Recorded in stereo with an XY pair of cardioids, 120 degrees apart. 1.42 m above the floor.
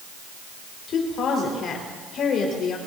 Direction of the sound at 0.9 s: 55° left.